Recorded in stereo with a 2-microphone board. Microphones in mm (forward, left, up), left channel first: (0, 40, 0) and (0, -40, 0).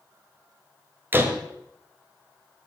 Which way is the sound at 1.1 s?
25° right (ahead or behind).